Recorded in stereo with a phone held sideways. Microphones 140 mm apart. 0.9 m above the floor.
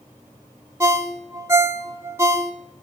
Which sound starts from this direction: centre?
A ringtone, at 0.8 s.